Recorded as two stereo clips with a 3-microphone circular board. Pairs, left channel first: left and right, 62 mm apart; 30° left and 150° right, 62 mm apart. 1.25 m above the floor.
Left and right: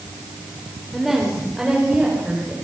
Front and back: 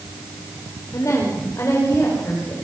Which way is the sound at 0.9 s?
Straight ahead.